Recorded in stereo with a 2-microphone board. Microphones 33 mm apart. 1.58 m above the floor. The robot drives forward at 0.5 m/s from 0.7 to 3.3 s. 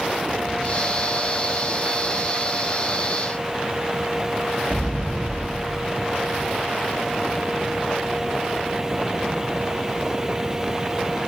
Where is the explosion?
35° left (ahead or behind), 2.5 m.